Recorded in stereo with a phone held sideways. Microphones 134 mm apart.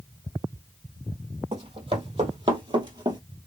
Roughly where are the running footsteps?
Right.